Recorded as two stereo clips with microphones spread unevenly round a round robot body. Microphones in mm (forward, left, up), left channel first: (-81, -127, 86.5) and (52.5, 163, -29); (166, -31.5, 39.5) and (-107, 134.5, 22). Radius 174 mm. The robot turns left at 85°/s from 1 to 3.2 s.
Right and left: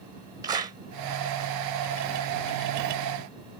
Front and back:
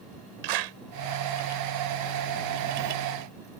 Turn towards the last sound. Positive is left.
turn(degrees=-45)